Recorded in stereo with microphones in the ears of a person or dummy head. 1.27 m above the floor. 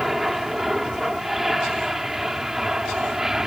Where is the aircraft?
Centre (ahead or behind); by 3.5 s 5° right (ahead or behind).